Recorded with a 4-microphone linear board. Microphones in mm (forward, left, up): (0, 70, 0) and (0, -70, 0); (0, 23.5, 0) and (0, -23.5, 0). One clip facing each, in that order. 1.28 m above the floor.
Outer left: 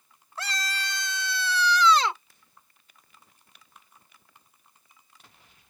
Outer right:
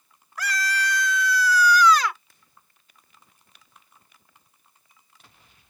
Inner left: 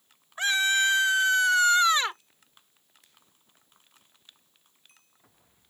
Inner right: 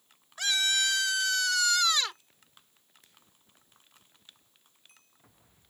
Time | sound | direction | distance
0.4 | a scream | 25° left (ahead or behind) | ?